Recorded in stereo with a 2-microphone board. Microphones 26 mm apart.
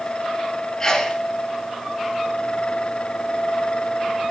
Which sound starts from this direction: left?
A sneeze, at 0.8 s.